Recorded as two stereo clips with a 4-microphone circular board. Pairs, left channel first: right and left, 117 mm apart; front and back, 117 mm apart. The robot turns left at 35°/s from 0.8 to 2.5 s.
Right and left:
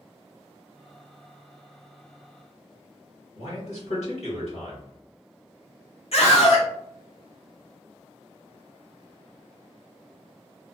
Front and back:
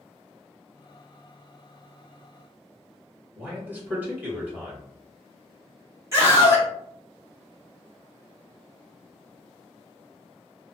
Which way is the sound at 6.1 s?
115° right.